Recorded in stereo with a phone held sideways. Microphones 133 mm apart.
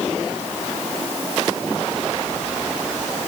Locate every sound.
Only background noise.